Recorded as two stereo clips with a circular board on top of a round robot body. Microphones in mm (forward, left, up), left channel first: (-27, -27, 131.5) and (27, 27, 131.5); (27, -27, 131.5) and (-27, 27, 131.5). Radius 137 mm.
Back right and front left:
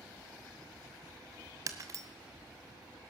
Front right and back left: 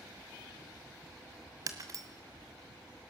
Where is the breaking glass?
90° left, 1.8 m.